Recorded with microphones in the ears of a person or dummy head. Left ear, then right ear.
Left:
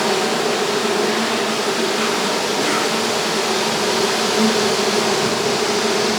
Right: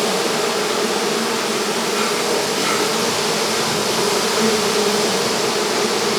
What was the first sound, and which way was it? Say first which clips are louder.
An insect: left 1 dB; 70° right (ahead or behind).